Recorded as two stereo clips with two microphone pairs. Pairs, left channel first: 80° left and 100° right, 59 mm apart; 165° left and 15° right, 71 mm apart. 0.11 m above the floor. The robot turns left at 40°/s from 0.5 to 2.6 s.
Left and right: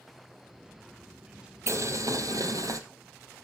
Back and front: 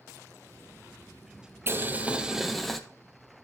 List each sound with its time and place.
1.7 s boiling: 65° right, 0.8 m; by 2.8 s 105° right, 0.8 m